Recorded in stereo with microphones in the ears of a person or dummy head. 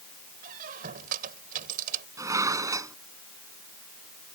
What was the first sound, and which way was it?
A squeak, 50° right (ahead or behind).